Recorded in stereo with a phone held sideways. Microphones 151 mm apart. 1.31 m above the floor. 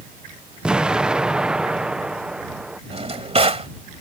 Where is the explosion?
5° right (ahead or behind).